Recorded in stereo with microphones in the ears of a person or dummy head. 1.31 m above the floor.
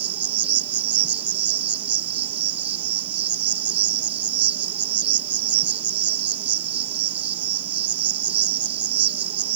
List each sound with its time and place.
0.0 s an insect: 30° right (ahead or behind)